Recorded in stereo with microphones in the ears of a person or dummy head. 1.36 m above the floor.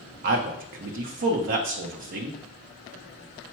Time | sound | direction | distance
0.2 | a man speaking | 55° right (ahead or behind) | 0.7 m